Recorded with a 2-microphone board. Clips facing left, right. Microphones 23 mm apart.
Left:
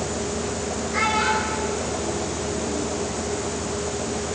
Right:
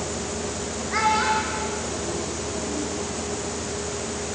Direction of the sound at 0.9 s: 30° right (ahead or behind).